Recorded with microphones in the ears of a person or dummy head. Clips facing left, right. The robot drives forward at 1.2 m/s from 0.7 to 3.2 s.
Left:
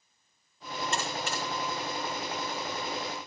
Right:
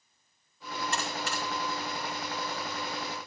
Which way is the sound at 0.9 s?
25° left (ahead or behind).